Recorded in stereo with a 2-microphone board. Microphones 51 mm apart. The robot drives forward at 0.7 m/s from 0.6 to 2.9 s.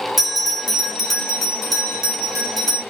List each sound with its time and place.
0.2 s a bell: 5° right (ahead or behind), 1.2 m; by 2.8 s centre (ahead or behind), 2.5 m